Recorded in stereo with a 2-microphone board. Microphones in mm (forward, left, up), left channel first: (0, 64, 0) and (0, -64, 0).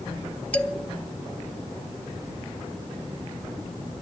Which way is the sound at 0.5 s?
10° left (ahead or behind).